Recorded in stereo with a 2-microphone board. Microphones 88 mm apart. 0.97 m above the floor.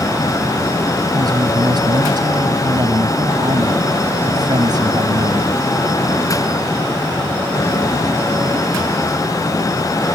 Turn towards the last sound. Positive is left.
turn(degrees=-50)  # may be behind; listen again after turning